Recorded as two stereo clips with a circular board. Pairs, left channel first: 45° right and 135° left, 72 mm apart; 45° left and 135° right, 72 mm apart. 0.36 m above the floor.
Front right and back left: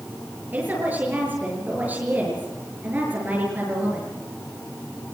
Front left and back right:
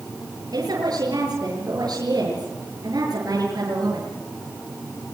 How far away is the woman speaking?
About 7 m.